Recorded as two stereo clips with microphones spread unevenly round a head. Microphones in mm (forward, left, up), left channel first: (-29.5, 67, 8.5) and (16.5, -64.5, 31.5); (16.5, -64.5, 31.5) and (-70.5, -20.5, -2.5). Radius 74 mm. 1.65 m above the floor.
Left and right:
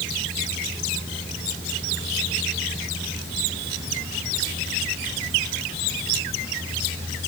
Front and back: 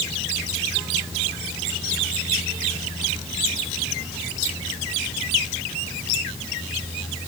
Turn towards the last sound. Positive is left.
No sound to turn to.